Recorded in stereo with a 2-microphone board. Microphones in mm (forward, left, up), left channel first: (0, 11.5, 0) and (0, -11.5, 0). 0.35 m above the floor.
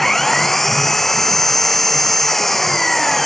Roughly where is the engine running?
Centre.